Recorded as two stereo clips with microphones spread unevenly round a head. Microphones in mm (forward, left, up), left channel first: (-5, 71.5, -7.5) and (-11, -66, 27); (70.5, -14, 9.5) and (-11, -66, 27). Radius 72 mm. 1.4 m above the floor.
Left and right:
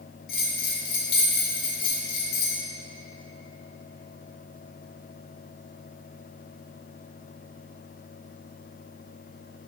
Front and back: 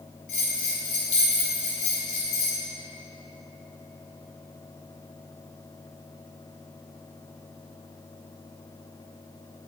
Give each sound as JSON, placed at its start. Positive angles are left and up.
{"t": 0.3, "sound": "a bell", "azimuth_deg": 65, "distance_m": 2.5}